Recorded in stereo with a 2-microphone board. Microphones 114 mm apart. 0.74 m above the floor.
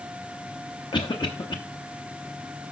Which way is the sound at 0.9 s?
40° left (ahead or behind).